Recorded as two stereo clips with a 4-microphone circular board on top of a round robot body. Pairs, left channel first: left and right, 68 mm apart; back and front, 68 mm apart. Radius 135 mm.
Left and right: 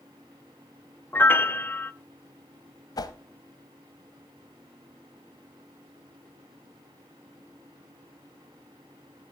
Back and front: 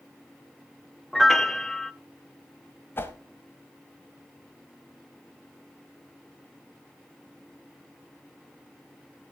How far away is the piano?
About 0.8 m.